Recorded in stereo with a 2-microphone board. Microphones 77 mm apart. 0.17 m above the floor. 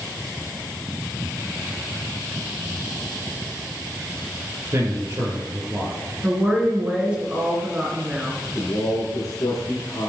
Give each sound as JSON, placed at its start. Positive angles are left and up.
{"t": 4.7, "sound": "a man speaking", "side_deg": -40, "distance_m": 4.0}
{"t": 6.2, "sound": "a woman speaking", "side_deg": -15, "distance_m": 2.5}
{"t": 8.6, "sound": "a man speaking", "side_deg": 45, "distance_m": 2.5}